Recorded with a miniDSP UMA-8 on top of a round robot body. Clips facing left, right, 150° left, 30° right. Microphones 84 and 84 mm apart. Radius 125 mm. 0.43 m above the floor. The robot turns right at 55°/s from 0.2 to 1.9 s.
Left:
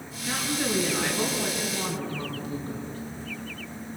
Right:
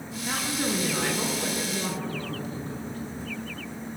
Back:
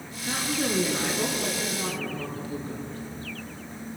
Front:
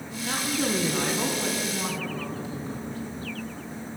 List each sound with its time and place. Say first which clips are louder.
0.2 s a woman speaking: even, front 1 dB; 50° right, 7 m; by 3.0 s 40° left, 7 m